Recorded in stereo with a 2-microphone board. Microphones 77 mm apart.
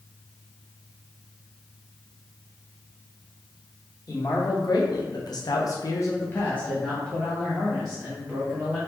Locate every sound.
4.1 s a man speaking: 50° left (ahead or behind), 1.2 m; by 8.8 s 10° right (ahead or behind), 1.9 m